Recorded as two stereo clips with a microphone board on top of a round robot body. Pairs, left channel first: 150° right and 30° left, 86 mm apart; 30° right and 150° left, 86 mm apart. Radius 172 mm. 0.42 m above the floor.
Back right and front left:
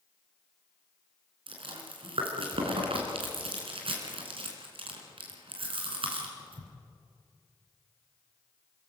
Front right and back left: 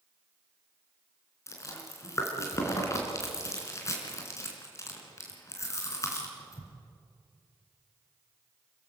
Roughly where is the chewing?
Ahead left.